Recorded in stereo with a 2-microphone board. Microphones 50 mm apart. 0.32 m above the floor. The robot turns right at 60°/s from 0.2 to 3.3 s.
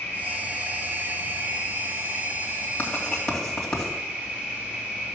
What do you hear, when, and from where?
0.0 s an insect: 150° left, 3.5 m; by 5.2 s 25° right, 3.5 m
2.8 s writing: 30° left (ahead or behind), 2.5 m; by 3.9 s 5° left (ahead or behind), 2.5 m